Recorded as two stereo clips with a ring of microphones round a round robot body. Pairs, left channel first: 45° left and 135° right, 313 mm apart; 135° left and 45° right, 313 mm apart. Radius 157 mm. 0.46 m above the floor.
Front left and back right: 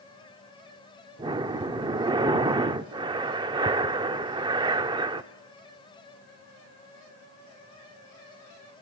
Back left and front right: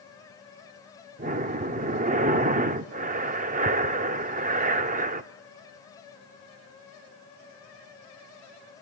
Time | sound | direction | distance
1.2 | breathing | 75° right | 0.7 m